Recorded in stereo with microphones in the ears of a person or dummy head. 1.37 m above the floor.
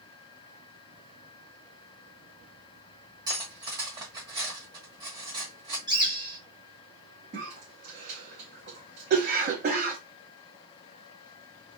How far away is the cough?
About 1.0 m.